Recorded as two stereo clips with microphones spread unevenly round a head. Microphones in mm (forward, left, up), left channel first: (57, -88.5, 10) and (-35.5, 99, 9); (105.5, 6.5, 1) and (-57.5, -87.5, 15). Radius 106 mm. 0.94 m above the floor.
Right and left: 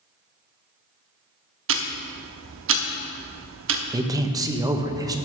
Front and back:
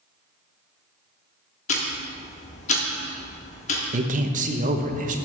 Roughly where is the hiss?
I don't hear a hiss.